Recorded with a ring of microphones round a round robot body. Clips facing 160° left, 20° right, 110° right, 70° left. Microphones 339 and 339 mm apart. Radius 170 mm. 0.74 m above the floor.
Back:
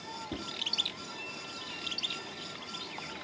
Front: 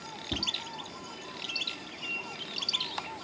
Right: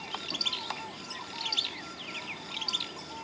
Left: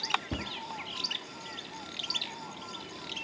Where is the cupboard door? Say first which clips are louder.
Front 2 dB, left 7 dB; 45° left.